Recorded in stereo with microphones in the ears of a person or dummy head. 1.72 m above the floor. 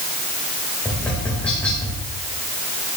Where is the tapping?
10° left (ahead or behind), 5 m.